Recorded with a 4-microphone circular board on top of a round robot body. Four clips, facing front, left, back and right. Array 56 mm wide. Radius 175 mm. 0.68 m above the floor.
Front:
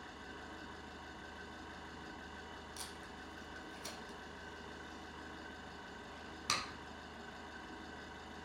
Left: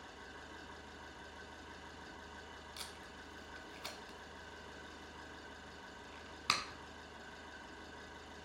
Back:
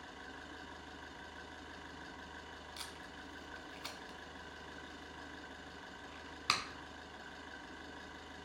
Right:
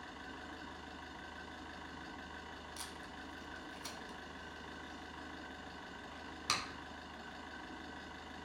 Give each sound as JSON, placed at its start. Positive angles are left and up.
{"t": 0.0, "sound": "an engine running", "azimuth_deg": -95, "distance_m": 1.6}
{"t": 2.8, "sound": "tape being pulled", "azimuth_deg": 140, "distance_m": 1.2}